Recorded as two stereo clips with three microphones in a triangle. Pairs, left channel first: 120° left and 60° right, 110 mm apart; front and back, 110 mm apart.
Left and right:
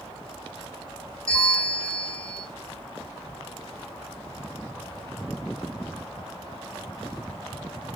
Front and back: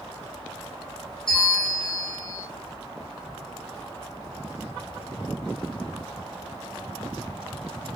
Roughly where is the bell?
Ahead left.